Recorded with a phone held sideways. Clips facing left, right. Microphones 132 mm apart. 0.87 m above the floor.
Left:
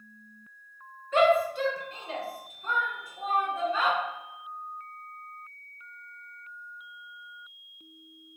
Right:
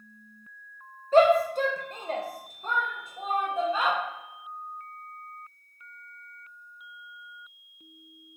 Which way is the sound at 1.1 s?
35° right (ahead or behind).